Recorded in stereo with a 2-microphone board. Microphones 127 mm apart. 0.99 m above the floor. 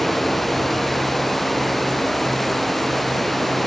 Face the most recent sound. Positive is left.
turn(degrees=0)  # may be behind; listen again after turning